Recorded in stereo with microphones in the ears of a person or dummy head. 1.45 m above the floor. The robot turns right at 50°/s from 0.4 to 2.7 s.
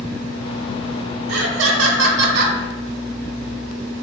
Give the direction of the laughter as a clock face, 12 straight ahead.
4 o'clock.